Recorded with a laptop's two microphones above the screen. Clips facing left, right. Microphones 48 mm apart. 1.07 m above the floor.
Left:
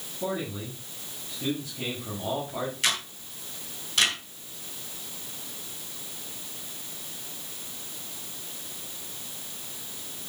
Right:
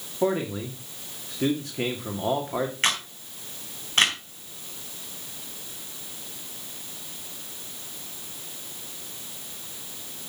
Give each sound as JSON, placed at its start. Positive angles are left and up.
{"t": 0.2, "sound": "a man speaking", "side_deg": -70, "distance_m": 2.0}
{"t": 2.8, "sound": "a camera shutter", "side_deg": -45, "distance_m": 4.0}